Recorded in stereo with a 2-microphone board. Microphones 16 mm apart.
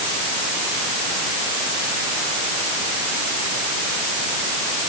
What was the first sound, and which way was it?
Only background noise.